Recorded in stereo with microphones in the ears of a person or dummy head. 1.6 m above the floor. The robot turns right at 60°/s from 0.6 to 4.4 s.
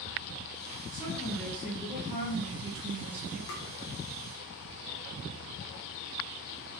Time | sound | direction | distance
0.9 | a woman speaking | 140° left | 0.8 m
3.5 | tapping | 65° left (ahead or behind) | 0.6 m